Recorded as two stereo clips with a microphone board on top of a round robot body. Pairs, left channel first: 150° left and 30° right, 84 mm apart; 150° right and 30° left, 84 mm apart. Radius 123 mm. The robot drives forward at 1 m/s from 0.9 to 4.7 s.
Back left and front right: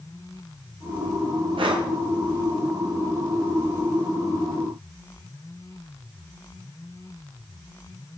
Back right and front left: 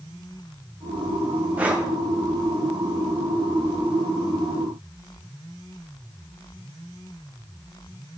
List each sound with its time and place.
1.6 s breathing: 40° right, 1.8 m; by 1.9 s 50° right, 1.6 m